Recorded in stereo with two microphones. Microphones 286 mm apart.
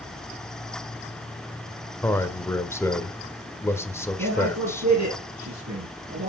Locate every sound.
2.0 s a man speaking: 10° left (ahead or behind), 1.1 m
4.2 s a man speaking: 65° right (ahead or behind), 4 m